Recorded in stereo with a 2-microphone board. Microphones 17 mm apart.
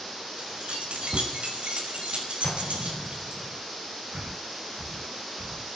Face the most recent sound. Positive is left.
turn(degrees=-80)